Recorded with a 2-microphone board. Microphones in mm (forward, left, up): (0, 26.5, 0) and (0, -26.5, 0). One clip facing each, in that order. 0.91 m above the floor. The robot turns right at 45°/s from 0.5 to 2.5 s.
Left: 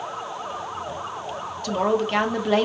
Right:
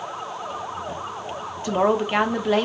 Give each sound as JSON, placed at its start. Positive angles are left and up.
{"t": 1.6, "sound": "a woman speaking", "azimuth_deg": -45, "distance_m": 0.8}